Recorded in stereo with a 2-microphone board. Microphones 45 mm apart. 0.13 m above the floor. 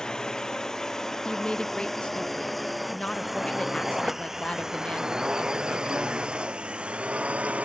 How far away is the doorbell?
I don't hear a doorbell.